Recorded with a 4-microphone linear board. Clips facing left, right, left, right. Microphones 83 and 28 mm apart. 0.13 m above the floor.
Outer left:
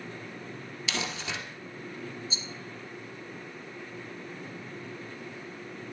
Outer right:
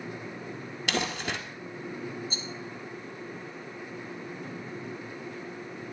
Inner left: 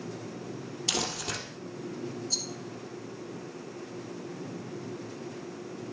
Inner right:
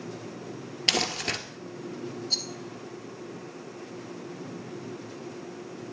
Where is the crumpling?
60° right (ahead or behind), 1.7 m.